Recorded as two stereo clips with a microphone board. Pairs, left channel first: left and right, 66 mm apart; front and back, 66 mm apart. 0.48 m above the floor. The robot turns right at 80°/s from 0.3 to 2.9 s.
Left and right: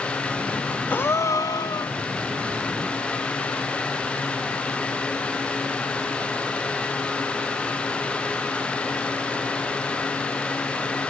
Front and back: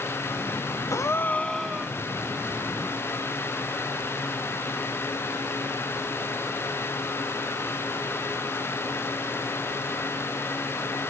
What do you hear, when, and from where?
0.9 s a gasp: 30° left, 0.5 m; by 2.0 s 115° left, 0.5 m